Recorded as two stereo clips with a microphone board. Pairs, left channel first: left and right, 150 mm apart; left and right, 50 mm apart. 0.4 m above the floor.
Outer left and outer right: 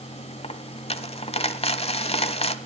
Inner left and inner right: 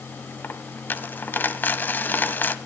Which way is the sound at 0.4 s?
40° left (ahead or behind).